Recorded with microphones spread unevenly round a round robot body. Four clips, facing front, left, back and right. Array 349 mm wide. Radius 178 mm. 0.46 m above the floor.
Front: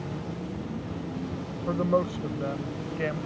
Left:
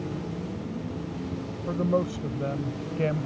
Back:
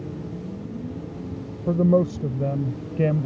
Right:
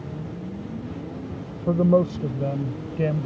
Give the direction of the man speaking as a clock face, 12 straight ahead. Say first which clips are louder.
Right 7 dB, back 6 dB; 5 o'clock.